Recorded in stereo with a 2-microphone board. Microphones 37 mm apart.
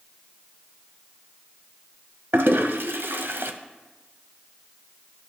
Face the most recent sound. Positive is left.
turn(degrees=-75)  # may be behind; listen again after turning